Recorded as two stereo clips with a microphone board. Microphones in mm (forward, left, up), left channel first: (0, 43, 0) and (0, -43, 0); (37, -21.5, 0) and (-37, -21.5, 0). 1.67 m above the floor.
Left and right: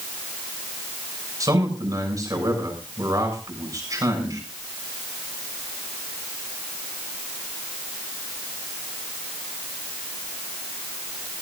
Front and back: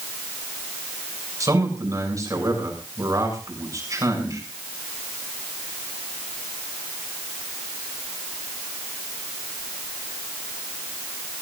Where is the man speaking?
140° right, 7 m.